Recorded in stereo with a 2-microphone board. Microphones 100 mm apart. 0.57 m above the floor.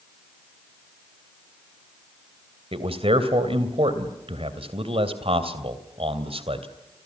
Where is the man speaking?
70° right (ahead or behind), 3 m.